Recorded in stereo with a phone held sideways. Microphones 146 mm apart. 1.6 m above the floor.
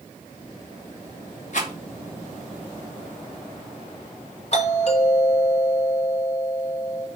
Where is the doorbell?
50° left (ahead or behind), 3.5 m.